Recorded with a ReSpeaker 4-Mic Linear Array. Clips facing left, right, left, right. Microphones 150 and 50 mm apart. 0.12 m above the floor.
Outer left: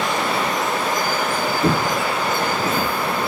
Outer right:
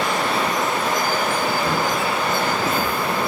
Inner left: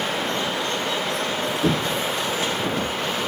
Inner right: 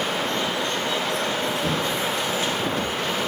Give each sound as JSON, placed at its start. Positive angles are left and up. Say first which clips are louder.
{"t": 1.6, "sound": "footsteps", "louder": "outer left 2 dB, inner left 2 dB", "side_deg": 65, "distance_m": 0.9}